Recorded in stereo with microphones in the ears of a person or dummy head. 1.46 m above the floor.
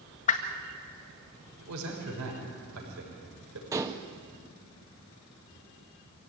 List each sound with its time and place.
0.3 s a whoosh: 40° left (ahead or behind), 1.7 m
1.6 s a man speaking: 85° right, 5.5 m
3.7 s dishes clattering: 15° right (ahead or behind), 1.3 m